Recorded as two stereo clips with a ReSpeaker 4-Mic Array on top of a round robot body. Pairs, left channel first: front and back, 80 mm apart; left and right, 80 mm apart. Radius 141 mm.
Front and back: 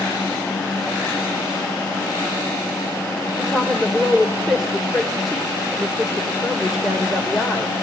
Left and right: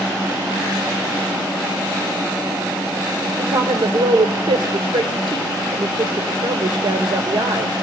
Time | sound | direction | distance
3.4 | a woman speaking | 95° right | 2 m